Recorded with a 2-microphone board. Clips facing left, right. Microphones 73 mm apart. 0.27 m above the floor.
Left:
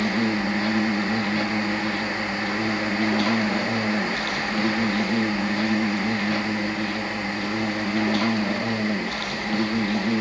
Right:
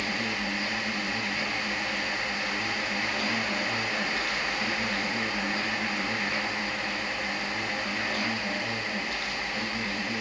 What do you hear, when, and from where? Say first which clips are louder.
0.0 s an insect: left 8 dB; 65° left (ahead or behind), 1.4 m